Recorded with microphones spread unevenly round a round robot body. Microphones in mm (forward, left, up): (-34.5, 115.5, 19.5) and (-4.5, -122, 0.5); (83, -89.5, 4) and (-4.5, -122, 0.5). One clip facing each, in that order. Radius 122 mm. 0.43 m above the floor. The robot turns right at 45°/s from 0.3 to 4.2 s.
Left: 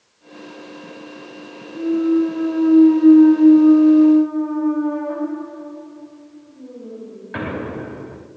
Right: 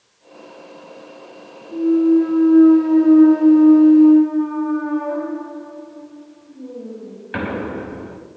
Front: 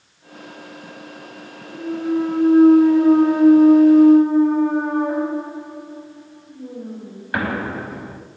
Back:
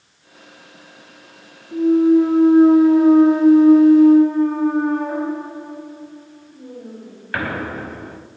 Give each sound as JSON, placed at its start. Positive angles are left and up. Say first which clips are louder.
{"t": 1.7, "sound": "a clunk", "louder": "right 3 dB, back 9 dB", "azimuth_deg": -160, "distance_m": 3.5}